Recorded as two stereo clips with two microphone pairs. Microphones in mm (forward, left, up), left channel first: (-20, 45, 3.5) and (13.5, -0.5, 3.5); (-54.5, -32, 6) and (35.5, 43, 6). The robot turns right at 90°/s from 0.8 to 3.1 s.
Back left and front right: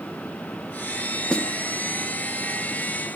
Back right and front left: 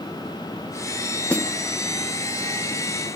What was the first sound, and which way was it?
A snare drum, 155° left.